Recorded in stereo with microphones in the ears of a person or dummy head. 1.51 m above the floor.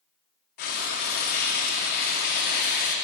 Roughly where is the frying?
Left.